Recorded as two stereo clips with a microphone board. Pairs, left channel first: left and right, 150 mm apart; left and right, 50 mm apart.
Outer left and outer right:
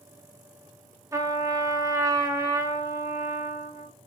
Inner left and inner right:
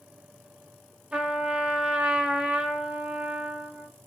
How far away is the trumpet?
About 0.6 m.